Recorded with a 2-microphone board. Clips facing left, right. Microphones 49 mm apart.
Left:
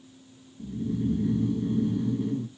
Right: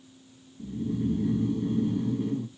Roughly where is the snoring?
Centre.